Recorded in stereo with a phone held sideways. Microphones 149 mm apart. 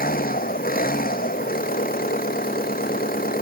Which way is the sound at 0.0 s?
75° left (ahead or behind).